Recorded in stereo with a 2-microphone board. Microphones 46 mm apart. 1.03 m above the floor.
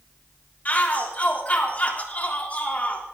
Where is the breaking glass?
No breaking glass in this recording.